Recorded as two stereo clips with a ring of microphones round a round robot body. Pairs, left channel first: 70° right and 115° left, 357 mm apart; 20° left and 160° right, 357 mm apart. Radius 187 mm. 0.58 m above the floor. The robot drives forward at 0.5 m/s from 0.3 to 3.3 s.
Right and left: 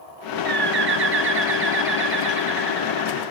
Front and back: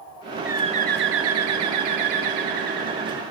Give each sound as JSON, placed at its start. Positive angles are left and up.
{"t": 0.5, "sound": "a bird", "azimuth_deg": 120, "distance_m": 0.5}